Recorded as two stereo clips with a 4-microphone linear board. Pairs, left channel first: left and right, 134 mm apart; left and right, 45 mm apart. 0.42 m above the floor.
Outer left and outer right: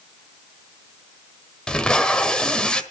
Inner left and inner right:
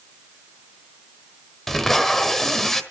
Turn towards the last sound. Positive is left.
turn(degrees=5)  # may be behind; listen again after turning